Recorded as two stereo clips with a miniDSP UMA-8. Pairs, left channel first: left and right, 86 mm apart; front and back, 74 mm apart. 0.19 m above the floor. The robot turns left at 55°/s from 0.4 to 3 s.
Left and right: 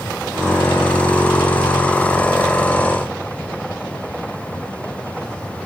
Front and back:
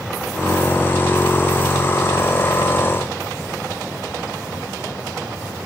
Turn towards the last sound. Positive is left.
No sound to turn to.